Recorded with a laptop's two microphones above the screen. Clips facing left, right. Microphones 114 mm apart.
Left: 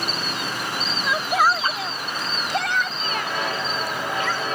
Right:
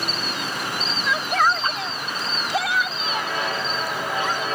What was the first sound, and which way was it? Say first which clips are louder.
A shout: left 1 dB; 15° left (ahead or behind).